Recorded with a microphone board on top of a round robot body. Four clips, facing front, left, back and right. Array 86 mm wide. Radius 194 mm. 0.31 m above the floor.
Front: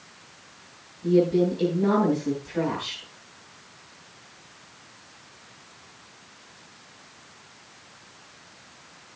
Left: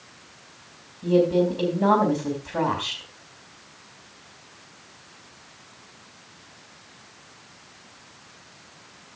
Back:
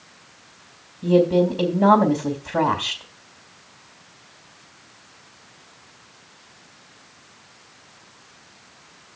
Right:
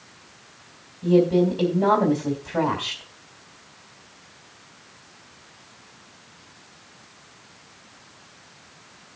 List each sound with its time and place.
1.0 s a woman speaking: 170° right, 3.5 m